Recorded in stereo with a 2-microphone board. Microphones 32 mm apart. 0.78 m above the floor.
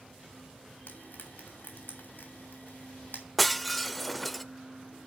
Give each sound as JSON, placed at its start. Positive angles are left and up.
{"t": 0.9, "sound": "frying", "side_deg": 70, "distance_m": 2.5}
{"t": 3.4, "sound": "breaking glass", "side_deg": 5, "distance_m": 0.6}